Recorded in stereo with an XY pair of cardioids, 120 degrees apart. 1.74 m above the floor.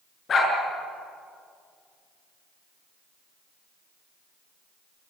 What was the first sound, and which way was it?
A dog barking, 40° left.